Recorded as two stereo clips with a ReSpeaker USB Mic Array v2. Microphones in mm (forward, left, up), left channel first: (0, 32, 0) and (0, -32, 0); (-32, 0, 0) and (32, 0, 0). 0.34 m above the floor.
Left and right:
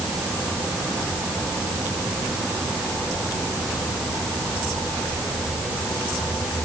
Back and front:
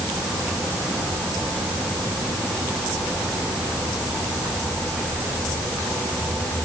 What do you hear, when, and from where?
Only background noise.